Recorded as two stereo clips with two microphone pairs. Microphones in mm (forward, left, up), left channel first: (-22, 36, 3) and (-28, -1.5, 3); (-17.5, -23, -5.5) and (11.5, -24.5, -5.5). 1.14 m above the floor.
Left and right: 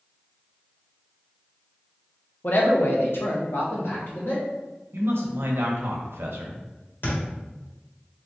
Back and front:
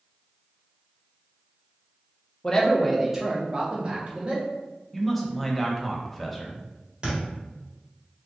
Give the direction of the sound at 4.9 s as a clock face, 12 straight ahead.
3 o'clock.